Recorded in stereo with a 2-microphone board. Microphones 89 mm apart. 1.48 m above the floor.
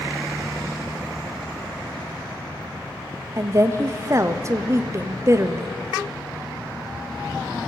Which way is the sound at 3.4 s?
35° right (ahead or behind).